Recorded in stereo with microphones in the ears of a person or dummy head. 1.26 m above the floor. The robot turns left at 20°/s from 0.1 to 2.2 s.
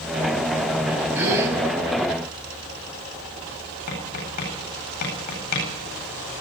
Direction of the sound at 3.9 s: 55° left (ahead or behind).